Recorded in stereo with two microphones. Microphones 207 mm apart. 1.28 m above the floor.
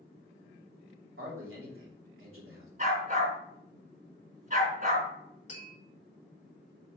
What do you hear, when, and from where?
1.2 s a man speaking: 90° right, 3 m
2.8 s a dog barking: 40° right (ahead or behind), 3.5 m
5.5 s tapping: 35° left (ahead or behind), 3 m